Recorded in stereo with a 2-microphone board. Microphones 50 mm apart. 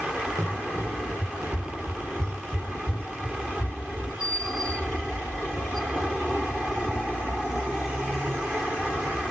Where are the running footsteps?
80° right, 5 m; by 4.1 s 55° right (ahead or behind), 6 m.